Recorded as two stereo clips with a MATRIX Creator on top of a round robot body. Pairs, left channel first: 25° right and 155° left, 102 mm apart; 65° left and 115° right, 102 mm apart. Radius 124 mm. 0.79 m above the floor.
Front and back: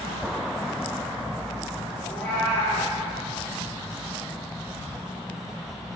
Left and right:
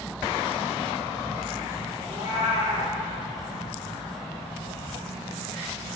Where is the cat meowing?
50° left, 2.5 m.